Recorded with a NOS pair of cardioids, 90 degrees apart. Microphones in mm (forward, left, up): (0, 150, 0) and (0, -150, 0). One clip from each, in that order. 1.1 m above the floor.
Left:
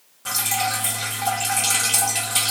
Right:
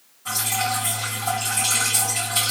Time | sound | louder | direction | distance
0.2 | dripping | left 1 dB | 65° left | 1.4 m